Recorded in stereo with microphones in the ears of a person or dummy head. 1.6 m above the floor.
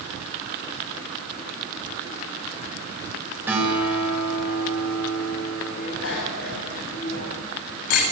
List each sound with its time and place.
3.5 s a guitar: 10° right (ahead or behind), 8 m
5.7 s a bicycle bell: 75° left (ahead or behind), 7 m